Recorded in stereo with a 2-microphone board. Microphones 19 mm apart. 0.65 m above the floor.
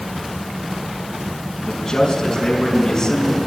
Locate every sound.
1.6 s a man speaking: 25° left (ahead or behind), 5 m